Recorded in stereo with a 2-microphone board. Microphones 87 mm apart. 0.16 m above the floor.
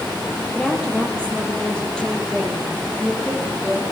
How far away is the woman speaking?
About 4.5 m.